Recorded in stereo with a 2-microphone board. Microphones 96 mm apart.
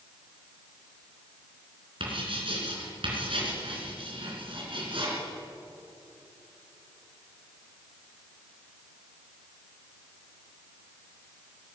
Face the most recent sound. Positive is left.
turn(degrees=-65)  # may be behind; listen again after turning